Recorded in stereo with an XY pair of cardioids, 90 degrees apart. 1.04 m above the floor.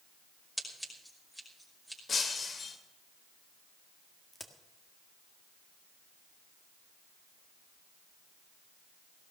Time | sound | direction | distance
0.6 | scissors | 5° left | 5.5 m
2.1 | breaking glass | 50° left | 2 m
4.3 | a crack | 15° left | 1.8 m